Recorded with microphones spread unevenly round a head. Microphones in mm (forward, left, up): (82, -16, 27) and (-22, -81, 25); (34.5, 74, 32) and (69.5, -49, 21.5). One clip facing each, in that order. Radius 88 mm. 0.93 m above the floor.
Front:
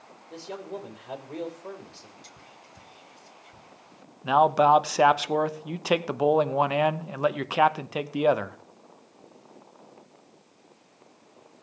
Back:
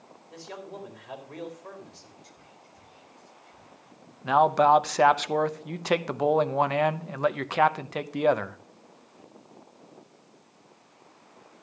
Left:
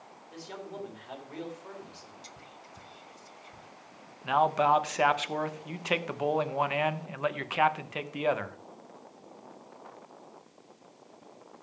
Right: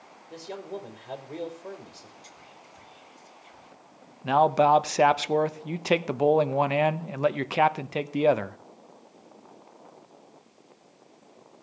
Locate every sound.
0.3 s a man speaking: 25° right, 4 m
2.2 s whispering: 50° left, 1.5 m
4.2 s a man speaking: 50° right, 0.9 m